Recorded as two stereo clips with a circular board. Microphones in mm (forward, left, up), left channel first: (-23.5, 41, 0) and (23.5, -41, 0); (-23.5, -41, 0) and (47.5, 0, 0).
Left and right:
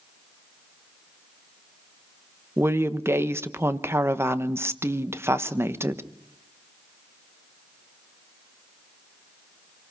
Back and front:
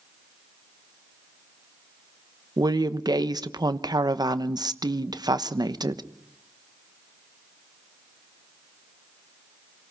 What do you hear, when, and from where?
2.6 s a woman speaking: straight ahead, 1.1 m